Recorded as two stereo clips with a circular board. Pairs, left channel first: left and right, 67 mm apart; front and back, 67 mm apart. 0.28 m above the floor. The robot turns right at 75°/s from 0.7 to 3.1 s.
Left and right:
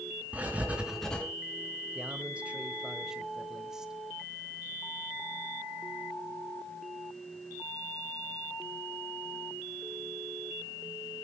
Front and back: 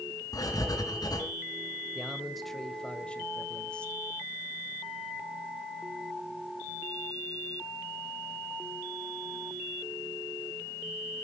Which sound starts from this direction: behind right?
A man speaking, at 1.9 s.